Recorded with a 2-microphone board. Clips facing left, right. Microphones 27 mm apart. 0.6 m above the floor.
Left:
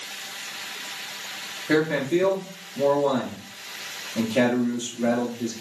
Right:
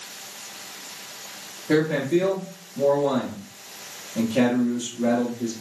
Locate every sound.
1.7 s a man speaking: 15° left (ahead or behind), 1.0 m